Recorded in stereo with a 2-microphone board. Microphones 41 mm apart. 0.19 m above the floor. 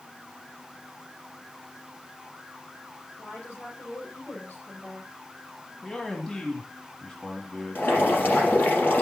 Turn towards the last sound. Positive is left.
turn(degrees=65)  # may be behind; listen again after turning